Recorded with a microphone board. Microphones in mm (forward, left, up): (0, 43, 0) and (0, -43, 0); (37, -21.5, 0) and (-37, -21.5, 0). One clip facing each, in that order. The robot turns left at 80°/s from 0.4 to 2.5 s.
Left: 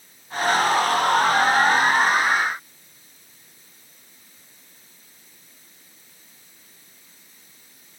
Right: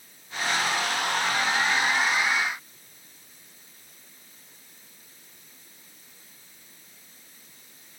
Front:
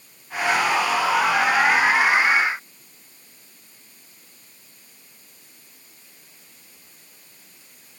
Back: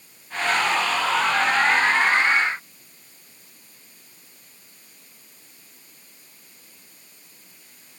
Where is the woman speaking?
No woman speaking in this recording.